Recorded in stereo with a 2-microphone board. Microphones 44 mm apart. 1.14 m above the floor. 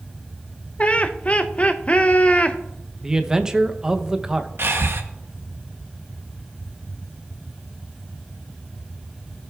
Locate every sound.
0.8 s laughter: 30° left (ahead or behind), 0.6 m
3.0 s a man speaking: 15° right (ahead or behind), 0.8 m
4.6 s breathing: 60° right (ahead or behind), 0.9 m